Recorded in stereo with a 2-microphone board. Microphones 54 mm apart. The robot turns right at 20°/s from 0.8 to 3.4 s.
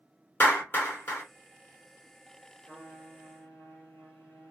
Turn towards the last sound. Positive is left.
turn(degrees=25)  # may be behind; listen again after turning